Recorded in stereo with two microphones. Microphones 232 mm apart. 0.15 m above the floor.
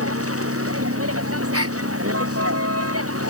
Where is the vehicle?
75° right (ahead or behind); by 3.3 s 80° right.